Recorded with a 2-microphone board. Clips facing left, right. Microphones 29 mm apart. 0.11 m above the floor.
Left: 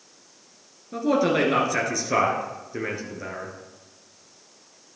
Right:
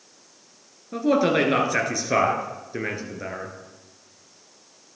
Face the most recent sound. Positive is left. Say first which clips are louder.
# right 1 dB
turn(degrees=-15)  # may be behind; listen again after turning